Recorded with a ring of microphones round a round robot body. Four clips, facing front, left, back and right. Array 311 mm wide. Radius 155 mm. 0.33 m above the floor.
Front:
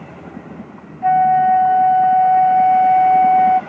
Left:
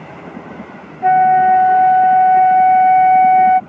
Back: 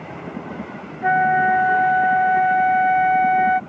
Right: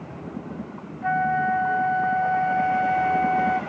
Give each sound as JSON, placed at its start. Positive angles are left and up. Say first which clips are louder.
{"t": 1.0, "sound": "a flute", "louder": "left 13 dB, front 4 dB", "azimuth_deg": 125}